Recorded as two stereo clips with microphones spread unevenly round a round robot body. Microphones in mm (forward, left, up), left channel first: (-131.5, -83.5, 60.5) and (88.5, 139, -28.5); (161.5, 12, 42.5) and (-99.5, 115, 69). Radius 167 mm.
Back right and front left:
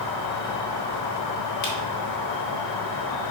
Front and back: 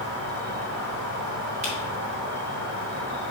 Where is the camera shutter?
135° right, 2.0 m.